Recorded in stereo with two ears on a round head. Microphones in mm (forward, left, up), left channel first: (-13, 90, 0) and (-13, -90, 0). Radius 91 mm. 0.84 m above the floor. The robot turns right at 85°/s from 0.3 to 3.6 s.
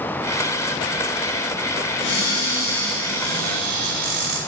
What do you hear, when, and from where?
2.0 s a cupboard door: 105° left, 4 m; by 4.4 s 120° right, 4 m